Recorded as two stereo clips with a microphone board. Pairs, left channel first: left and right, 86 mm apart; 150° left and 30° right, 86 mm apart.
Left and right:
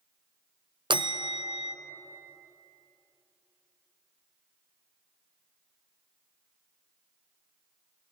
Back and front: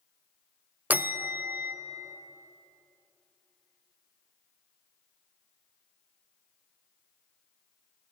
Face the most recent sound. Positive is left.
turn(degrees=-100)